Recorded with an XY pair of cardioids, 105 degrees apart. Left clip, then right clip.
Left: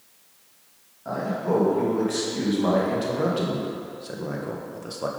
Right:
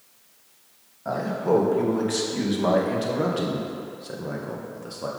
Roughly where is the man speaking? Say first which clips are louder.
Right 2 dB; ahead right.